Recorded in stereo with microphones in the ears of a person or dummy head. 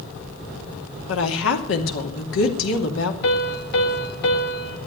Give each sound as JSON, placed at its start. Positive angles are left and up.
{"t": 1.1, "sound": "a woman speaking", "side_deg": 75, "distance_m": 2.5}
{"t": 3.2, "sound": "a piano", "side_deg": 60, "distance_m": 1.9}